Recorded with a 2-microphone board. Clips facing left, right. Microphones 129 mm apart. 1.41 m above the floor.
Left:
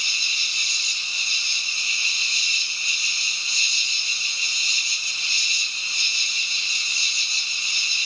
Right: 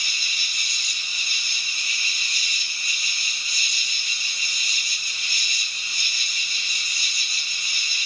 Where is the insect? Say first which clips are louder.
Even; 30° left (ahead or behind), 1.4 m.